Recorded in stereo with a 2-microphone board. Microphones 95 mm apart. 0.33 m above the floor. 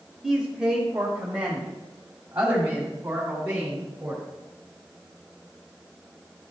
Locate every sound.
0.2 s a man speaking: 5° right (ahead or behind), 1.1 m; by 4.2 s 20° right (ahead or behind), 2.5 m